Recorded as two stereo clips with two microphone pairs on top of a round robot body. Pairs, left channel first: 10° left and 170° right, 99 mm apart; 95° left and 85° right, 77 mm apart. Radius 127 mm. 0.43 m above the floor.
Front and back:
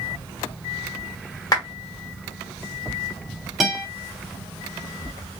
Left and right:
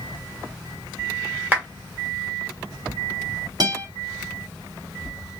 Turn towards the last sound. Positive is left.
turn(degrees=-80)